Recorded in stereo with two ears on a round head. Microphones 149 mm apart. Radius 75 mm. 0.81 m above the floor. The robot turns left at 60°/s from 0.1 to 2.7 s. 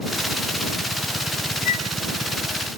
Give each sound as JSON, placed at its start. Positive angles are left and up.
{"t": 1.6, "sound": "a flute", "side_deg": 55}